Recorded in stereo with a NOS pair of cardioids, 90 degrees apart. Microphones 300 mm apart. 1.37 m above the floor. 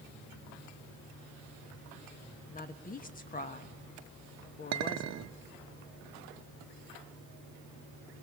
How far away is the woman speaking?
About 1.5 m.